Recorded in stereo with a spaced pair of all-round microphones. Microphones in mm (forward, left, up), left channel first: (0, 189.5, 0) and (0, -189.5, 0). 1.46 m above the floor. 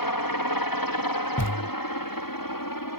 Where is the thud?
45° left (ahead or behind).